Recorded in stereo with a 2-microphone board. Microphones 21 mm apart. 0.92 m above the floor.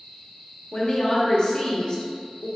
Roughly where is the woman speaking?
Left.